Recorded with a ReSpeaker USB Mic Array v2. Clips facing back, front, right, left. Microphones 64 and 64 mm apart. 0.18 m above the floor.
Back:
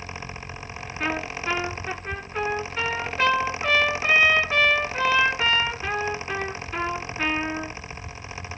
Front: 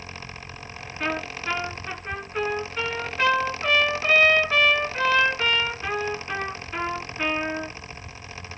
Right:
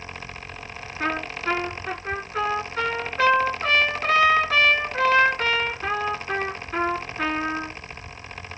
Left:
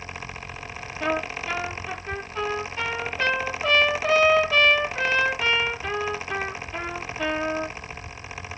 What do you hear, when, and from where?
1.0 s a trumpet: 95° right, 2.5 m